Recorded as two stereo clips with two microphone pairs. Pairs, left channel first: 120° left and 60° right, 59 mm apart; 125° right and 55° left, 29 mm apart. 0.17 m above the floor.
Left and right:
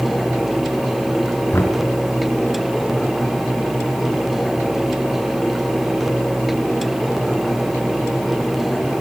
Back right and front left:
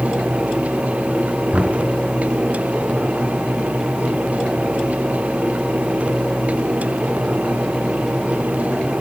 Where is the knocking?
85° left, 2.0 m.